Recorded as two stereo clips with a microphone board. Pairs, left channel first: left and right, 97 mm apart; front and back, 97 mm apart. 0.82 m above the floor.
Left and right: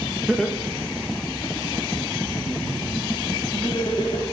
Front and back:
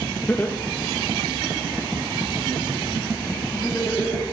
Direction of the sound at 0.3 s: 20° right.